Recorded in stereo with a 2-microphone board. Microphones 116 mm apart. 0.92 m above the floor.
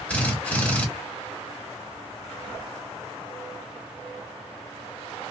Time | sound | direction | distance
0.1 | a drill | 15° left (ahead or behind) | 1.3 m